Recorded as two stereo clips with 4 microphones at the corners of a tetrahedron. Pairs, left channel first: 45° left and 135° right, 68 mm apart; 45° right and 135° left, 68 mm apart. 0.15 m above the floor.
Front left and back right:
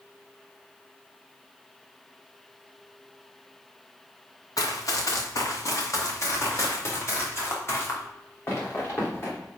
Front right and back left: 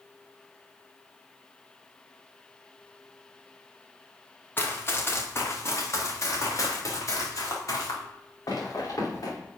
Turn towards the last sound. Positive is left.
turn(degrees=-10)